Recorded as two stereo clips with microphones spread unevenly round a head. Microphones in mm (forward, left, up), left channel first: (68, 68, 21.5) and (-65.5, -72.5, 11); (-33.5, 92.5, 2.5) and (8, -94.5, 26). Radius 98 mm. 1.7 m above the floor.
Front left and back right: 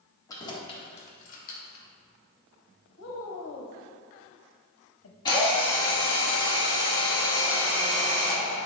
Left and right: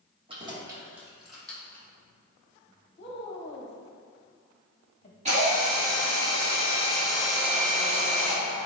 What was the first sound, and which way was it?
Keys jangling, 25° right.